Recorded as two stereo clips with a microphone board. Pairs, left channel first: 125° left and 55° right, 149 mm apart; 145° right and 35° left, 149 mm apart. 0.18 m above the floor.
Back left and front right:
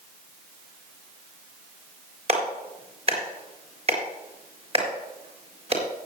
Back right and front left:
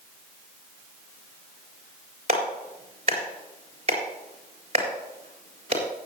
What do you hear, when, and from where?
2.3 s a clap: 10° right, 3.5 m